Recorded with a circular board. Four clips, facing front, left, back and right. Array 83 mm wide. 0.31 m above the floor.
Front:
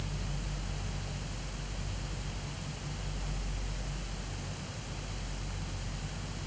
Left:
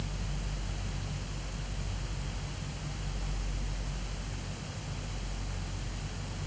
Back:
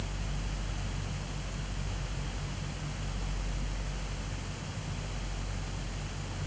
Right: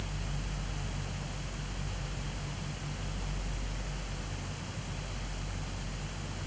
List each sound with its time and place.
Only background noise.